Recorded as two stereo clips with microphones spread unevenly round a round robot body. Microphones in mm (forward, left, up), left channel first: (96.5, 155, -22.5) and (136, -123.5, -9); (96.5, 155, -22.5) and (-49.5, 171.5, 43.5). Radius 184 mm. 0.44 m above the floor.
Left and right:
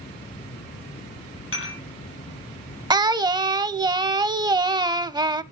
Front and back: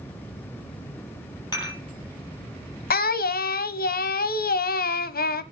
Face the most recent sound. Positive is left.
turn(degrees=-5)